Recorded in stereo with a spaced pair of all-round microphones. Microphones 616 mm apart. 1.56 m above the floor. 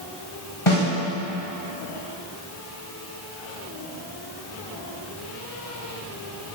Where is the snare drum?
55° left (ahead or behind), 2.5 m.